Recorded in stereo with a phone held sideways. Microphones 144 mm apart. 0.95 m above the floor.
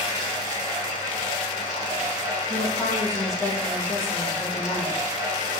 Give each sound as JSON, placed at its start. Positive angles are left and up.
{"t": 0.0, "sound": "running water", "side_deg": -30, "distance_m": 4.0}
{"t": 2.5, "sound": "a woman speaking", "side_deg": 0, "distance_m": 1.6}